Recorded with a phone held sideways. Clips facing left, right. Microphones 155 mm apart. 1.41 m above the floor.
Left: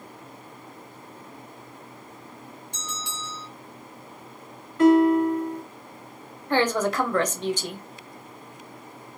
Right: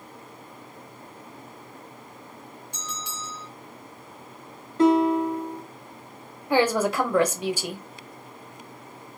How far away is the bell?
About 1.2 m.